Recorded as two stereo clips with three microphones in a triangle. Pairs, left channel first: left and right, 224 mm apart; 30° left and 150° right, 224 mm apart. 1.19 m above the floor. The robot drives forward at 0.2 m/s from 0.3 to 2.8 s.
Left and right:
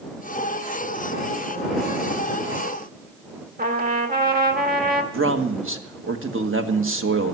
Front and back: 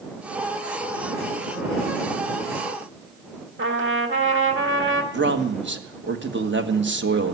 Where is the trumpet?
135° right, 1.4 m.